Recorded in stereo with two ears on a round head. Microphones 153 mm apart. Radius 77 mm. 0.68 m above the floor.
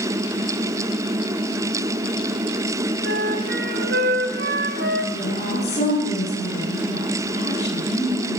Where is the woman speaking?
40° left (ahead or behind), 9.5 m.